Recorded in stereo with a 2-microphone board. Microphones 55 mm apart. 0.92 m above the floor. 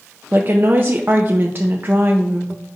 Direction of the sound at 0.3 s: 40° right (ahead or behind).